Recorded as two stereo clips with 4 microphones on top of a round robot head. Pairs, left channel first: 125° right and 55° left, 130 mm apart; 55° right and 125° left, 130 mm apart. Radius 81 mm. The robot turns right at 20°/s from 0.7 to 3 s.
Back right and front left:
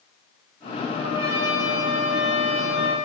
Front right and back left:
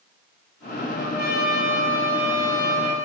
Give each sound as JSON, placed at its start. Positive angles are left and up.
{"t": 0.9, "sound": "a trumpet", "azimuth_deg": -25, "distance_m": 2.0}